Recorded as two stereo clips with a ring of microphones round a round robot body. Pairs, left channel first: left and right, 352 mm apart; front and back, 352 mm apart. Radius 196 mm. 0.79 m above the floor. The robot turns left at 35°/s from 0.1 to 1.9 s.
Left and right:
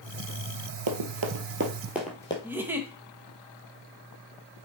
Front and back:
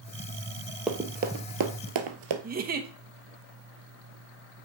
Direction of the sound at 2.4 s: 165° right.